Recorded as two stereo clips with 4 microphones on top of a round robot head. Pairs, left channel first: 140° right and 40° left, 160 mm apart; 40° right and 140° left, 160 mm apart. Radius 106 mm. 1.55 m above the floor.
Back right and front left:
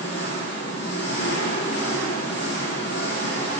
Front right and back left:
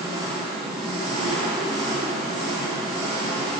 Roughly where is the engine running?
Behind.